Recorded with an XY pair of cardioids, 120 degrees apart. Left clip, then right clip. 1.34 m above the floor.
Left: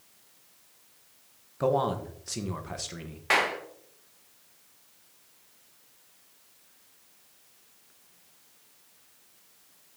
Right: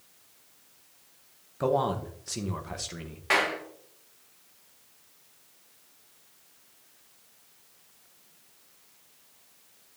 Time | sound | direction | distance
1.6 | a man speaking | straight ahead | 1.0 m
3.3 | a clap | 15° left | 1.4 m